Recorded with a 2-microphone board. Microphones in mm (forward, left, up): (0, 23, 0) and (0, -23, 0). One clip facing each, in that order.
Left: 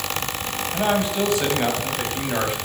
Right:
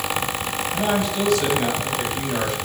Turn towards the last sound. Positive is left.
turn(degrees=20)  # may be behind; listen again after turning